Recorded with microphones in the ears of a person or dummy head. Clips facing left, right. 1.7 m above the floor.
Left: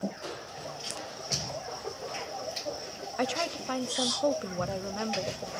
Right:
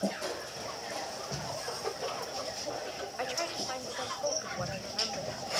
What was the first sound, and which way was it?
Crushing, 50° right (ahead or behind).